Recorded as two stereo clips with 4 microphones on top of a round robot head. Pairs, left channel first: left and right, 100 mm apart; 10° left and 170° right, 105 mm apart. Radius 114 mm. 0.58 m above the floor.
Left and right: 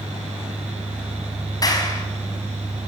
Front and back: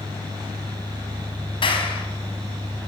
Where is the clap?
40° left, 5 m.